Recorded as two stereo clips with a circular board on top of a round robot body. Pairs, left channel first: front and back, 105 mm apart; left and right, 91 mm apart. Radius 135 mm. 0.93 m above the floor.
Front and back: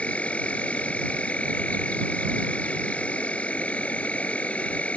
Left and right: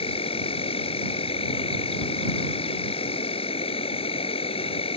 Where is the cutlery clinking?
I don't hear cutlery clinking.